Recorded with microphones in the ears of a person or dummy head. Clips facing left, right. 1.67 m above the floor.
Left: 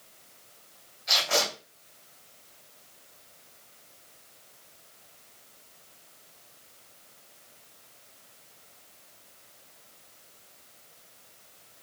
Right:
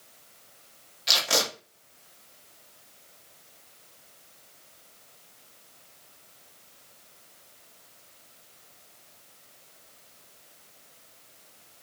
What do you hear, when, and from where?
1.1 s tape being pulled: 80° right, 1.0 m